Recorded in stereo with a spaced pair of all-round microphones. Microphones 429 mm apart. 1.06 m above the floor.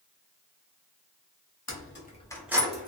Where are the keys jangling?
40° left (ahead or behind), 0.7 m; by 2.9 s 20° right (ahead or behind), 0.7 m.